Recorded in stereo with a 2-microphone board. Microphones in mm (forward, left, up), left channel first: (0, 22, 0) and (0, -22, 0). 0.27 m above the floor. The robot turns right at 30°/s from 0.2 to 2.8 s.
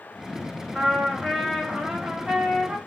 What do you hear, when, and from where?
0.8 s a trumpet: centre (ahead or behind), 0.7 m; by 2.8 s 15° right (ahead or behind), 0.7 m